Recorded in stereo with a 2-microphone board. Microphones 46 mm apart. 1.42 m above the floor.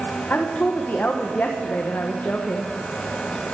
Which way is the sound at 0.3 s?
40° left (ahead or behind).